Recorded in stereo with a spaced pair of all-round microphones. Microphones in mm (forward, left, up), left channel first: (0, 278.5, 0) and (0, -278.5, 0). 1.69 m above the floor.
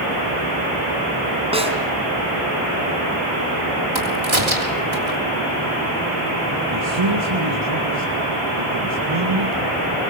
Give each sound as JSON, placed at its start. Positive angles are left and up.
{"t": 1.5, "sound": "a snare drum", "side_deg": -10, "distance_m": 3.0}
{"t": 4.0, "sound": "a crack", "side_deg": -55, "distance_m": 3.5}
{"t": 6.7, "sound": "a man speaking", "side_deg": -55, "distance_m": 2.5}